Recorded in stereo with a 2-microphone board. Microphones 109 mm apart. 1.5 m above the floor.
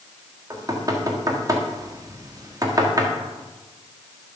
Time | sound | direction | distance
0.5 | knocking | 35° right (ahead or behind) | 1.7 m